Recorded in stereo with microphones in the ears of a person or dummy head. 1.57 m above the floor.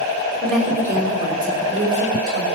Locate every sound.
0.4 s a woman speaking: centre (ahead or behind), 0.7 m; by 2.5 s 55° right (ahead or behind), 1.5 m